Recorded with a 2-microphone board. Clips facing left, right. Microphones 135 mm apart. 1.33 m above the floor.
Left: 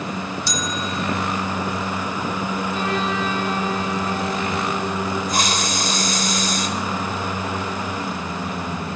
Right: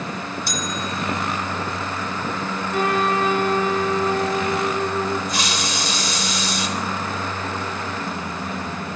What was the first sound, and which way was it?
A bell, 55° right (ahead or behind).